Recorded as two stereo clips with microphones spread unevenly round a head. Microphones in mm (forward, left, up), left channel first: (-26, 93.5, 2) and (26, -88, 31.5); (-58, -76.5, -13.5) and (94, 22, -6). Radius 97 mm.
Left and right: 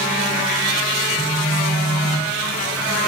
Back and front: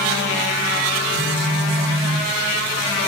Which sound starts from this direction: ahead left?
A phone buzzing, at 1.1 s.